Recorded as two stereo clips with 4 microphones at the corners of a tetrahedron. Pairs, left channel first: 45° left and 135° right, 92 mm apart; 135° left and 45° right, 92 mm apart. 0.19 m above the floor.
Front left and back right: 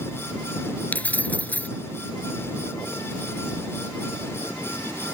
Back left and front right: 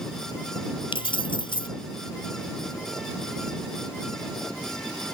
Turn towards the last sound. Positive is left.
turn(degrees=120)